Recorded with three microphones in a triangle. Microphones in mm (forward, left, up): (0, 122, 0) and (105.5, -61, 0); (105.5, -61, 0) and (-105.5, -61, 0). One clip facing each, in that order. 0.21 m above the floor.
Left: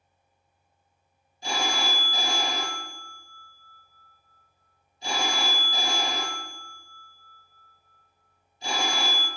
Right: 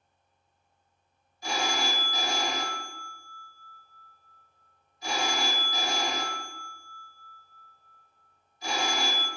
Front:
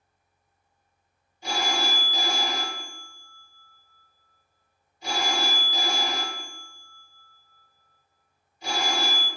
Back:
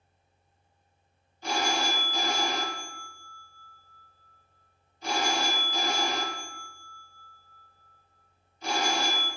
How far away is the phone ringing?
About 0.9 m.